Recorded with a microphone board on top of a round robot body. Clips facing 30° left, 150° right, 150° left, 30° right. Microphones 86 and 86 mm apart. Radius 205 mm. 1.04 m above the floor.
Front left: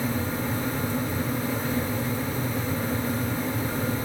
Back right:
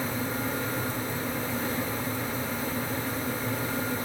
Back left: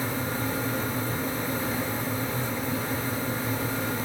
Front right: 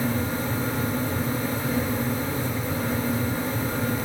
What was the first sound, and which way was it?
Only background noise.